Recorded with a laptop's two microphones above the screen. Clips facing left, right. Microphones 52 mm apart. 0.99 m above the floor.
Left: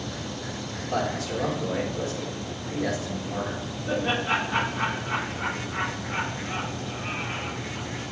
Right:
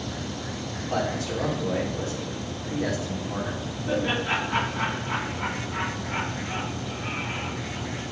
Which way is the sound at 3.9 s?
40° right (ahead or behind).